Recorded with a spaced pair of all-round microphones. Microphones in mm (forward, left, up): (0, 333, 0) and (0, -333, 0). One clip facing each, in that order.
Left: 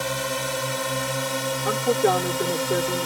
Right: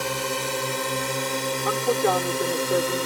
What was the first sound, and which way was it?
A drone, 15° left (ahead or behind).